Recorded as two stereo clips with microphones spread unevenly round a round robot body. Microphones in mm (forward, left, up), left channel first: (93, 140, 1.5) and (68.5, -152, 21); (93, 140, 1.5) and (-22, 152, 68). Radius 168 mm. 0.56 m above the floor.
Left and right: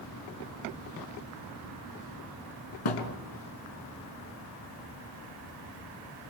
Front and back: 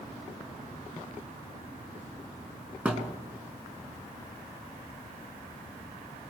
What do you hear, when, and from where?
2.9 s a thud: 95° left, 3.5 m